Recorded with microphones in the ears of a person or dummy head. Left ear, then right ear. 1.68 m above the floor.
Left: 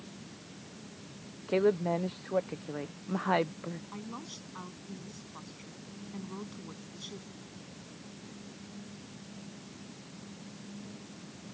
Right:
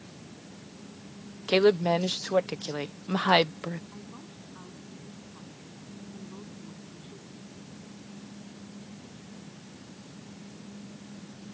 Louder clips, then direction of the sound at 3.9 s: Left 3 dB; 75° left (ahead or behind).